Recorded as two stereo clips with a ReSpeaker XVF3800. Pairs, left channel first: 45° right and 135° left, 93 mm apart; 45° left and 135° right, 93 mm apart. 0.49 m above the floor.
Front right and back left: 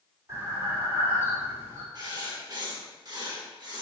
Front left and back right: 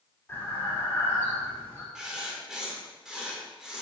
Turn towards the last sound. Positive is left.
turn(degrees=145)